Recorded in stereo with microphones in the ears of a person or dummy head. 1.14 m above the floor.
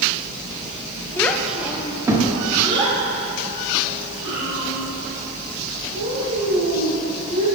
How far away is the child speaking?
About 0.6 m.